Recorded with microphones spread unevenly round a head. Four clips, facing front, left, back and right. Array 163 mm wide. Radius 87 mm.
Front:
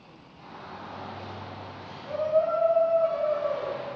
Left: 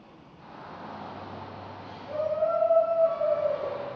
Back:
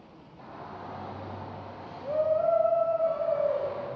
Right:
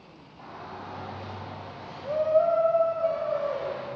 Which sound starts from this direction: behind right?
A shout, at 0.4 s.